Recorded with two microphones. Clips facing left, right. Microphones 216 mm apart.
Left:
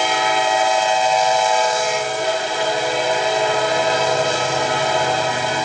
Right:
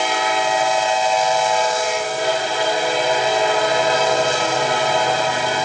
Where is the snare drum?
I don't hear a snare drum.